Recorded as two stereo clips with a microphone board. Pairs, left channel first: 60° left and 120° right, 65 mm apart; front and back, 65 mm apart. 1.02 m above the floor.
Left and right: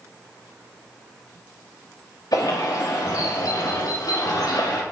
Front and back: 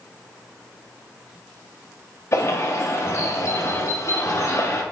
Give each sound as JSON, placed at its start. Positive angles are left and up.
{"t": 2.3, "sound": "a bird", "azimuth_deg": 40, "distance_m": 1.2}